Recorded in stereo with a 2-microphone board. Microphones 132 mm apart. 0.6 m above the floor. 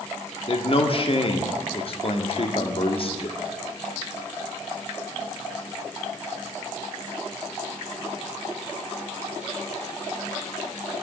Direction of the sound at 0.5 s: 45° left (ahead or behind).